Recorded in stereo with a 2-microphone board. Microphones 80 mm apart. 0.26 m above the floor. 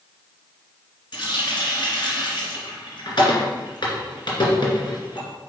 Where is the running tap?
70° left (ahead or behind), 2.5 m.